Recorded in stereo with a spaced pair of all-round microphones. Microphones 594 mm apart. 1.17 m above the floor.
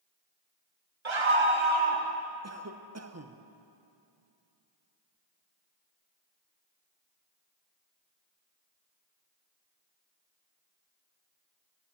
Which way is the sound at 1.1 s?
50° right (ahead or behind).